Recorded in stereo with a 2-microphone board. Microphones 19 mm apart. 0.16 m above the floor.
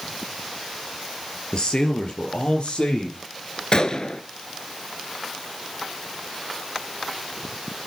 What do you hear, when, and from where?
1.5 s a man speaking: 50° left (ahead or behind), 3 m; by 3.6 s 75° left (ahead or behind), 5 m
3.7 s a gunshot: 45° left (ahead or behind), 0.8 m